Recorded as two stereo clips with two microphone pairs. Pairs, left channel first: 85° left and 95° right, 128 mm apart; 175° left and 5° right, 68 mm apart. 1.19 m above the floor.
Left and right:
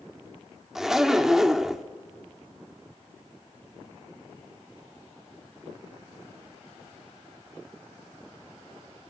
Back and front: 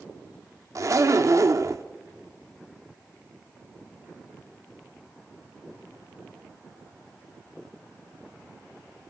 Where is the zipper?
5° right, 1.0 m.